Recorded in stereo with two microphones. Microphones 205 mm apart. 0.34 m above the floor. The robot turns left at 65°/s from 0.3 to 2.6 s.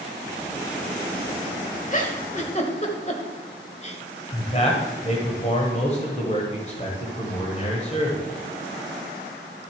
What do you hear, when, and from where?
1.9 s a giggle: 40° left (ahead or behind), 1.2 m; by 4.0 s 35° left (ahead or behind), 1.2 m
4.3 s a man speaking: 35° left (ahead or behind), 1.4 m